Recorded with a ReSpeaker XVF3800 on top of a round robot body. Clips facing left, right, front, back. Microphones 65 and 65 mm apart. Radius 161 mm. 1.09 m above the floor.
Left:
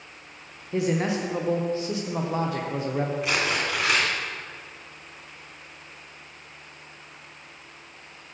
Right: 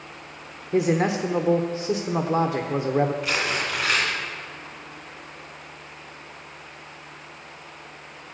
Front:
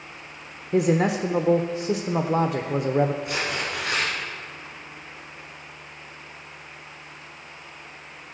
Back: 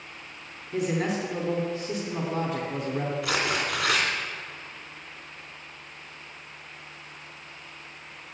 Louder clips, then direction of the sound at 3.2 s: Even, back 1 dB; 165° left.